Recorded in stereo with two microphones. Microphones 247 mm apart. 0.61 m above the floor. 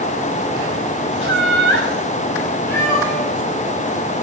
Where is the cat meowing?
10° left (ahead or behind), 7 m.